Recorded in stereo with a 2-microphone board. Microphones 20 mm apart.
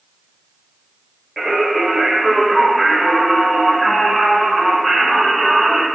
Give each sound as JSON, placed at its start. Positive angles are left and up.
{"t": 1.4, "sound": "singing", "side_deg": -15, "distance_m": 0.9}